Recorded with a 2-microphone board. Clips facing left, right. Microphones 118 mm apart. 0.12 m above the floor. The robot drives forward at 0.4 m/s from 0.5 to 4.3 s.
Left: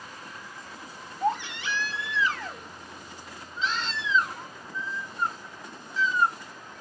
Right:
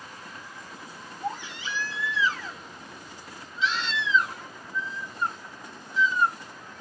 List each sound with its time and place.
1.2 s a baby crying: 70° left (ahead or behind), 0.9 m; by 6.3 s 35° left (ahead or behind), 1.5 m